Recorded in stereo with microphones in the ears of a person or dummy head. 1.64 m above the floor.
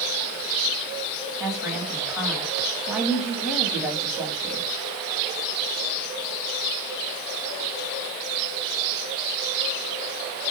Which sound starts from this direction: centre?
A woman speaking, at 1.4 s.